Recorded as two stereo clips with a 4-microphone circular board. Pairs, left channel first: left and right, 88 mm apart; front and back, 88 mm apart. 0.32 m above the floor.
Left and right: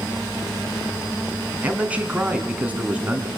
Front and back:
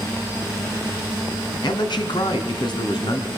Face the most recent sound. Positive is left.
turn(degrees=-20)